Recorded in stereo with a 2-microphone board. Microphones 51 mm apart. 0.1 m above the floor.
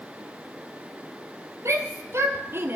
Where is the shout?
65° right (ahead or behind), 2.5 m; by 2.8 s 40° right (ahead or behind), 2 m.